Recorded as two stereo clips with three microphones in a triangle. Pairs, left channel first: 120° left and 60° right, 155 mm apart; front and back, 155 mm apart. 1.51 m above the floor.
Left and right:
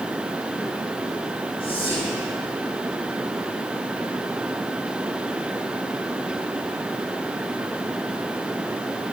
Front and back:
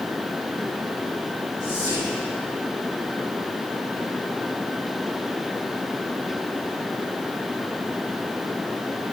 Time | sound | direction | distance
1.6 | whispering | 140° left | 2 m